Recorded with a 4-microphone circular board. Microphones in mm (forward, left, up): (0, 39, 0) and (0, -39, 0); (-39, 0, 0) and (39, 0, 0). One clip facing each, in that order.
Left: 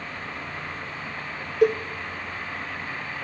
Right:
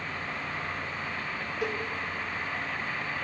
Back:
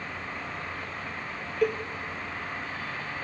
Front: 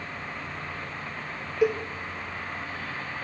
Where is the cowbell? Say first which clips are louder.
Left 14 dB, front 3 dB; 80° left, 0.6 m.